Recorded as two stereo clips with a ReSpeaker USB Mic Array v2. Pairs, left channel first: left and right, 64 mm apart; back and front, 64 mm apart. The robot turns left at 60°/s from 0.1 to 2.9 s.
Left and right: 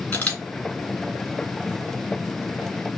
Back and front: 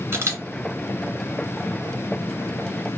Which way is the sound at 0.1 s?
40° left.